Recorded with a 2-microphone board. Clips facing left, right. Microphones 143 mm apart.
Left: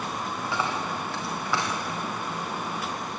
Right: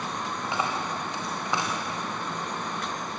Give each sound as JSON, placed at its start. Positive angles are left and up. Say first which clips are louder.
{"t": 0.4, "sound": "a dropped coin", "louder": "even", "side_deg": -20, "distance_m": 5.0}